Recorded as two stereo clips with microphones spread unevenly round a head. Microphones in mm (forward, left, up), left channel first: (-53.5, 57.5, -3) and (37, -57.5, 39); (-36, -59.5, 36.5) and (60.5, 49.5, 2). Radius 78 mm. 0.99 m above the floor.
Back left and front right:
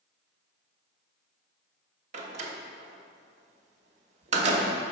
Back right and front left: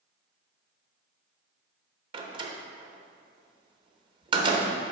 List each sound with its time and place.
2.1 s a door slam: straight ahead, 0.8 m